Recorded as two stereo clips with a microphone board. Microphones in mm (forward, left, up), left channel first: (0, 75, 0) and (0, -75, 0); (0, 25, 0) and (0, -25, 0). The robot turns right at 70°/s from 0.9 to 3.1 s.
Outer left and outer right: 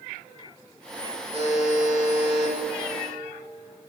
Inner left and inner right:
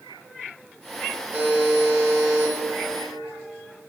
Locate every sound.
1.3 s a buzzer: 135° right, 2.5 m; by 2.5 s 50° right, 2.5 m